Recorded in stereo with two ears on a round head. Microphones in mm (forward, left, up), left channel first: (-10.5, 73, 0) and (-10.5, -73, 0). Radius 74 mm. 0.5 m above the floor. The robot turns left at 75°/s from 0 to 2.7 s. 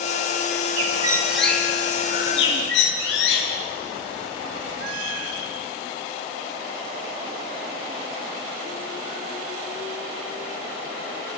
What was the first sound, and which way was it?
A bird, 45° right (ahead or behind).